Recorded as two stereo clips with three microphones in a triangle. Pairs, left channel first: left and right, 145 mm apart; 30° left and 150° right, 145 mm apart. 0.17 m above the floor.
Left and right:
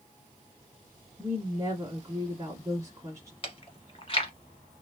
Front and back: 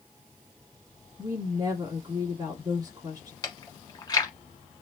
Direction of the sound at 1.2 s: 130° right.